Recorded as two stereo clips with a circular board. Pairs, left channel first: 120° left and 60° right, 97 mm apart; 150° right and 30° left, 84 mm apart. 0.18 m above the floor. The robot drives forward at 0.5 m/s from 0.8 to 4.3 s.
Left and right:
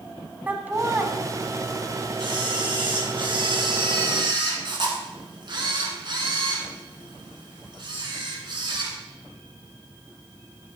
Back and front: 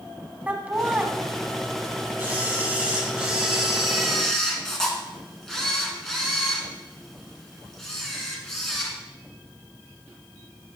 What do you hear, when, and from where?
0.5 s laughter: 20° right, 1.0 m; by 1.1 s 25° right, 1.0 m
2.2 s a camera shutter: 35° right, 2 m; by 9.0 s 65° right, 1.6 m